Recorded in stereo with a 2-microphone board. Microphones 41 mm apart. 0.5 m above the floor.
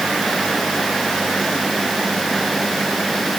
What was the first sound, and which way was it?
Only background noise.